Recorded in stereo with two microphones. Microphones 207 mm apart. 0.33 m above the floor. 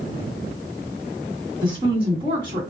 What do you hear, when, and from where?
1.6 s a woman speaking: 10° right (ahead or behind), 1.4 m